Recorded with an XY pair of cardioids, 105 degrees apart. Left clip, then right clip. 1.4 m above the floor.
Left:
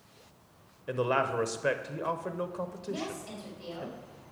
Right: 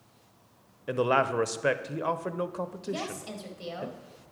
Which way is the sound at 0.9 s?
25° right.